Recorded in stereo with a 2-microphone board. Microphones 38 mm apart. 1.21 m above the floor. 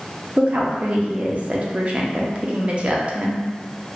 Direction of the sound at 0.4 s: 35° right (ahead or behind).